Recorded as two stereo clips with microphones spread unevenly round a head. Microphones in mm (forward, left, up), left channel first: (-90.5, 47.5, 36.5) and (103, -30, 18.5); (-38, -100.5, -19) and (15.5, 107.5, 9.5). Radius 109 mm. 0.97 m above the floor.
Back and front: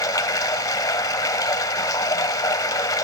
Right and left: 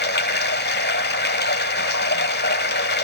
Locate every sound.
0.0 s running water: 135° right, 1.0 m